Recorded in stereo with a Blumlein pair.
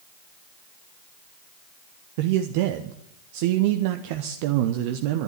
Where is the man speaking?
45° right, 0.8 m.